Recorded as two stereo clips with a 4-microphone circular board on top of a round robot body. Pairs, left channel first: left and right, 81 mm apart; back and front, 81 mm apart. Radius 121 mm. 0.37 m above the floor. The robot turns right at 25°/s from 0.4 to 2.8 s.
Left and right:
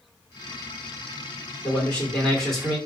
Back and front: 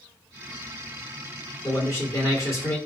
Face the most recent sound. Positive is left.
turn(degrees=180)